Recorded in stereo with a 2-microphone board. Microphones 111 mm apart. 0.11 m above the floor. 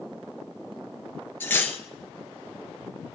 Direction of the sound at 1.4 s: 20° left (ahead or behind).